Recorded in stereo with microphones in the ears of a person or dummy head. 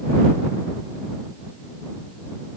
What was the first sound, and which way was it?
Only background noise.